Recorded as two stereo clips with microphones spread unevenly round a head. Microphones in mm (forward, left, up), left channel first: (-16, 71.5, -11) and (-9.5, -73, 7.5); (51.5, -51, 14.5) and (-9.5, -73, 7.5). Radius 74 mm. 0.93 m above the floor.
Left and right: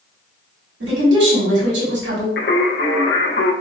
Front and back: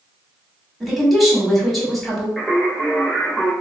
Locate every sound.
0.8 s a woman speaking: 70° right, 1.9 m
2.4 s singing: 110° left, 0.7 m